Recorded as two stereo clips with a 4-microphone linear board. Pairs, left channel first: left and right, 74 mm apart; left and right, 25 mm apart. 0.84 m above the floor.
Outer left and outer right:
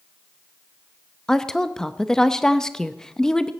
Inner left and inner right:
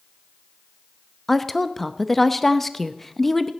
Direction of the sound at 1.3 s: 10° left (ahead or behind).